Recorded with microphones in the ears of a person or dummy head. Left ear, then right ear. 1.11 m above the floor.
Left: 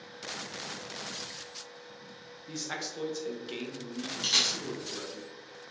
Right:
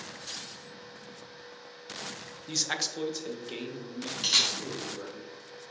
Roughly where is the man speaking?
Right.